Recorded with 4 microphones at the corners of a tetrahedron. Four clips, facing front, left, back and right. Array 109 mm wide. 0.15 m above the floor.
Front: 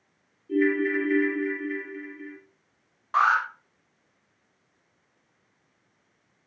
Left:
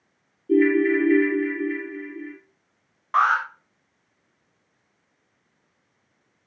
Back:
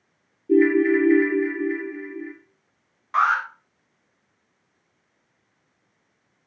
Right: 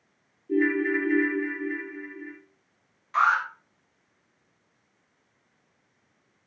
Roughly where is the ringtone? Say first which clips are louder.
Left 6 dB, back 7 dB; behind left.